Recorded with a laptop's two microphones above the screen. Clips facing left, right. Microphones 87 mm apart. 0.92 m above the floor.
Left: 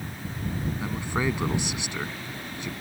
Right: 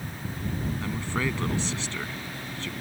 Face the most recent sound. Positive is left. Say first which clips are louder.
# left 3 dB
turn(degrees=15)  # may be behind; listen again after turning